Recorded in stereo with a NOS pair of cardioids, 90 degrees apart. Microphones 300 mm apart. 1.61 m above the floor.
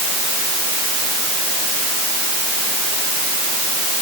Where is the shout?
I don't hear a shout.